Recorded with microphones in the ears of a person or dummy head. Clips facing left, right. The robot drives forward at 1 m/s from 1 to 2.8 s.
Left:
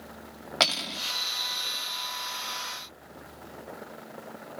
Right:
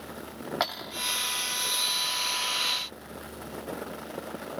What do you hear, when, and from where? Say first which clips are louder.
0.6 s cutlery clinking: left 5 dB; 45° left (ahead or behind); by 1.0 s 50° left (ahead or behind)